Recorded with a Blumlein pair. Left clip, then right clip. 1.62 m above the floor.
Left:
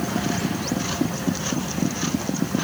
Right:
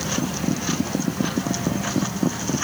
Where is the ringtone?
I don't hear a ringtone.